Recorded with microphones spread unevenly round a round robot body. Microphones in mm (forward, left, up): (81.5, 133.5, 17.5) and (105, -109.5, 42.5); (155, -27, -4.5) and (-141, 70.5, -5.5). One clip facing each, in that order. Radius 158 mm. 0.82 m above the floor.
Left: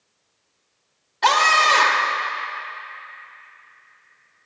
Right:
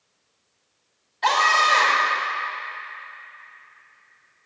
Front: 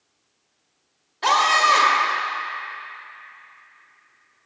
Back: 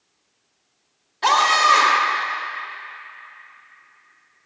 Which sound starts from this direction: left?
A scream, at 1.2 s.